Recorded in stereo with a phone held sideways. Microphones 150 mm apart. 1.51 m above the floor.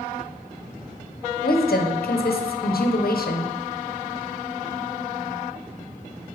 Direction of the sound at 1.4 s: 85° left.